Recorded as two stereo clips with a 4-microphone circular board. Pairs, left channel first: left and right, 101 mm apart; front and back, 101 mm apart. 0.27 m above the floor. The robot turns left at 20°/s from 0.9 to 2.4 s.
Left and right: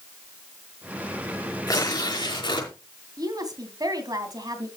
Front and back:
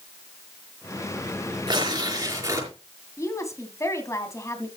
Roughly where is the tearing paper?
Behind left.